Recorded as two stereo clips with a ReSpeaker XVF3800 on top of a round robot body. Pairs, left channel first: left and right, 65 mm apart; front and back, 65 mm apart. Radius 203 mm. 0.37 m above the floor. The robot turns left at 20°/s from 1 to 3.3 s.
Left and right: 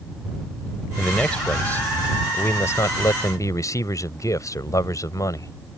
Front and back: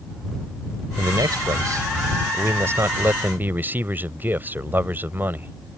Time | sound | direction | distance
1.0 | a man speaking | 165° left | ?